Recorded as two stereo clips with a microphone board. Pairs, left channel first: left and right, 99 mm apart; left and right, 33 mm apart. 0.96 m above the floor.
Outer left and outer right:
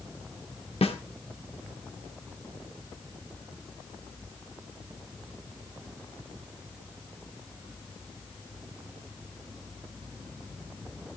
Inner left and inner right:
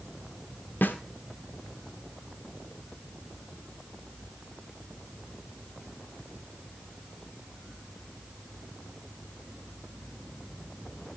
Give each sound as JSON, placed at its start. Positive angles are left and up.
{"t": 0.8, "sound": "a snare drum", "side_deg": 80, "distance_m": 1.5}